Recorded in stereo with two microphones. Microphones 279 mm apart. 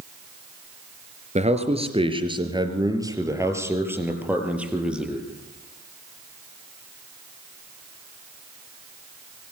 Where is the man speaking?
25° right (ahead or behind), 3 m; by 5.2 s centre (ahead or behind), 4.5 m.